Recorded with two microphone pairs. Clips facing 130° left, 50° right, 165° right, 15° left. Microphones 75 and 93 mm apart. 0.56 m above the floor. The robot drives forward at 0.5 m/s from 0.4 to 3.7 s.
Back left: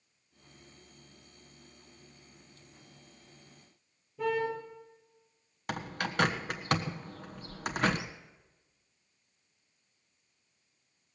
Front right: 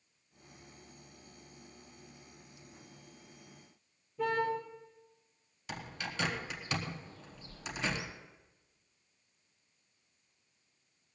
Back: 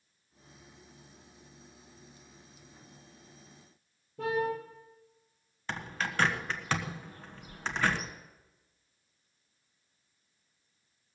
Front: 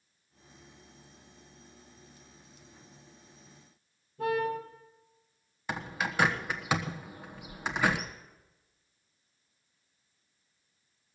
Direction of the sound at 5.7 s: 95° left.